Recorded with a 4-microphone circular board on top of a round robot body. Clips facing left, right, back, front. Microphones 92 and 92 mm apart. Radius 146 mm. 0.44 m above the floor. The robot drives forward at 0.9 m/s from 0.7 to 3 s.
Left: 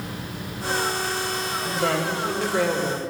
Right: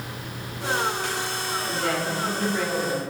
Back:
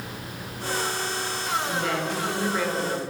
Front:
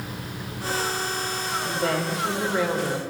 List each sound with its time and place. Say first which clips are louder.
1.6 s a woman speaking: left 3 dB, front 1 dB; 45° left, 3 m; by 3.0 s 70° left, 2.5 m